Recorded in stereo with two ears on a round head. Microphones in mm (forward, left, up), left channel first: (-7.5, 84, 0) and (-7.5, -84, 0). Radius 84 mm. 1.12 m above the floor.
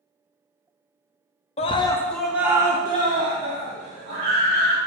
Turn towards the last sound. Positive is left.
turn(degrees=-40)  # may be behind; listen again after turning